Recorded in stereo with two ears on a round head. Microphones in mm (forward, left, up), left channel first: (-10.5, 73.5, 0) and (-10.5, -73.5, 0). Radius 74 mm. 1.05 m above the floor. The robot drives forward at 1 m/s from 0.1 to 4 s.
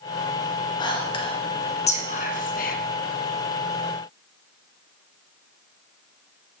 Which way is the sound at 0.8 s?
25° left (ahead or behind).